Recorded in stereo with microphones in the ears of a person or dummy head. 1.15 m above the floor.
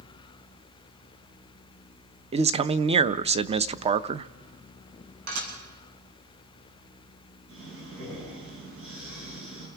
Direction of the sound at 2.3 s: 35° right (ahead or behind).